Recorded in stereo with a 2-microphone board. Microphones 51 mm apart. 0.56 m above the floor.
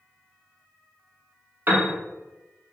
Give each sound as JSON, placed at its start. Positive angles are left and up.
{"t": 1.7, "sound": "a piano", "side_deg": -40, "distance_m": 0.8}